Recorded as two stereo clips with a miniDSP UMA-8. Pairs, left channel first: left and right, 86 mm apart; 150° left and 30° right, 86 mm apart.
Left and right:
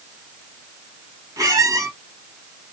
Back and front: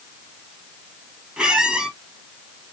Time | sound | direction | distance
1.4 | a squeak | 105° right | 1.2 m